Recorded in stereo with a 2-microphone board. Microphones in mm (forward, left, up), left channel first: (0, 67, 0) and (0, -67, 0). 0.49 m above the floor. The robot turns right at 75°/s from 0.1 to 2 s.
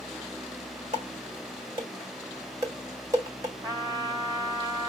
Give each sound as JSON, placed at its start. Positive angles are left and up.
{"t": 0.9, "sound": "dishes clattering", "side_deg": -60, "distance_m": 1.5}
{"t": 3.6, "sound": "a trumpet", "side_deg": -25, "distance_m": 1.1}